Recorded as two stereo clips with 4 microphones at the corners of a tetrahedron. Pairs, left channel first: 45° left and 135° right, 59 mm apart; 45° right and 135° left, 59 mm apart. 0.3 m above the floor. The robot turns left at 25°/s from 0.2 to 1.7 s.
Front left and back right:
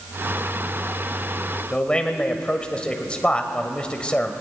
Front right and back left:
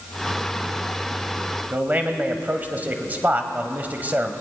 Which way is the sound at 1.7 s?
105° left.